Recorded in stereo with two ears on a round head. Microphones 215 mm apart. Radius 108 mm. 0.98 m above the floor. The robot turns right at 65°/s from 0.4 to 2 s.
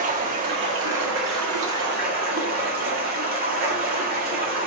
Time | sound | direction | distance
0.0 | running water | 145° right | 2.0 m